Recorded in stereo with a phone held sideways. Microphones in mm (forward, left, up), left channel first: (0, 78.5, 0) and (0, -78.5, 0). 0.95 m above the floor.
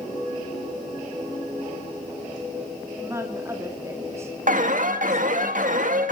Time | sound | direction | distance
3.0 | a woman speaking | 20° right (ahead or behind) | 2 m
4.5 | an alarm | 65° right (ahead or behind) | 1.9 m